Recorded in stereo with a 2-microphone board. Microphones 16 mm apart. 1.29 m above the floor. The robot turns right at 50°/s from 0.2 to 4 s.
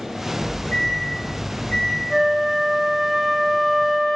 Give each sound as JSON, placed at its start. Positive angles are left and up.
{"t": 0.4, "sound": "a microwave", "azimuth_deg": 50, "distance_m": 0.7}
{"t": 2.1, "sound": "a flute", "azimuth_deg": -60, "distance_m": 0.9}